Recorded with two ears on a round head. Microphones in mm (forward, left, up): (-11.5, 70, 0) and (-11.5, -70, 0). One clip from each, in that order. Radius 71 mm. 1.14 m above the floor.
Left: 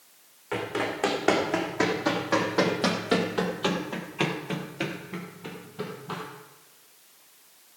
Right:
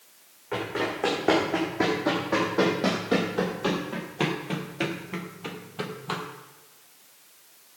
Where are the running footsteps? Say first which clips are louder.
Even; 70° left (ahead or behind), 4 m; by 6.2 s 40° right (ahead or behind), 1.9 m.